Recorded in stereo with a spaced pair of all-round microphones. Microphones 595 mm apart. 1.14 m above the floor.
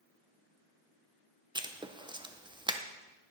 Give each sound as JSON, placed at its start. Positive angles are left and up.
{"t": 1.6, "sound": "writing", "side_deg": -10, "distance_m": 0.6}